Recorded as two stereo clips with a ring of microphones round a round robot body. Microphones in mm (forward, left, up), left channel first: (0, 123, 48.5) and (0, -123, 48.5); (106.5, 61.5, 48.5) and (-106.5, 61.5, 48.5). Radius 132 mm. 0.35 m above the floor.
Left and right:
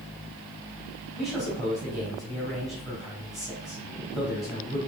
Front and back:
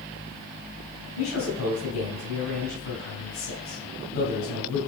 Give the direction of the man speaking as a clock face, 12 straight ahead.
12 o'clock.